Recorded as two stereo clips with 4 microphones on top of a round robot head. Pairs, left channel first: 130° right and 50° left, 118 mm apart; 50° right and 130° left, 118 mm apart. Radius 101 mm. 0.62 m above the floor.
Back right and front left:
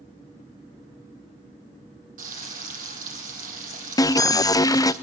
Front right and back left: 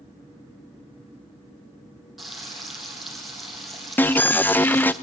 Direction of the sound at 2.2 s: 40° left.